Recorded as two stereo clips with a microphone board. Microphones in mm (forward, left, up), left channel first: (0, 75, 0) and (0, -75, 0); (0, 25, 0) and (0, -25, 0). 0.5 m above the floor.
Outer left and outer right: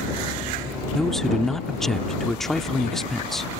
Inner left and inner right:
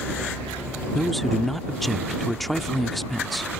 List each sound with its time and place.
0.9 s a man speaking: 5° left (ahead or behind)